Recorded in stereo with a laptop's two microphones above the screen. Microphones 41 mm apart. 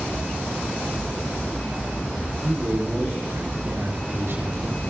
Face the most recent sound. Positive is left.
turn(degrees=-85)